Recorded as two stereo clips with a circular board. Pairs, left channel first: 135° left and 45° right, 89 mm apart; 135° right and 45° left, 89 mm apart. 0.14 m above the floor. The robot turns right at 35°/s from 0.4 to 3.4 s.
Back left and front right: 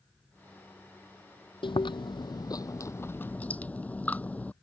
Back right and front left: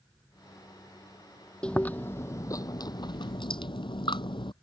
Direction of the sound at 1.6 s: 145° left.